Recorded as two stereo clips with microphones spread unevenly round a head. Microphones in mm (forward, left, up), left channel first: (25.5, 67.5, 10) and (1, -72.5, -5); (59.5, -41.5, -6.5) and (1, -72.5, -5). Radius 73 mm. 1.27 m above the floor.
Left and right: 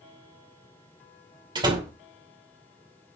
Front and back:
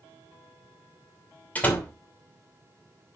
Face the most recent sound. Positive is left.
turn(degrees=-40)